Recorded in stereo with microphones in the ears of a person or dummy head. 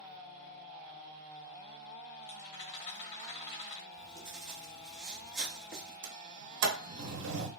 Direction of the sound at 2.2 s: 35° left (ahead or behind).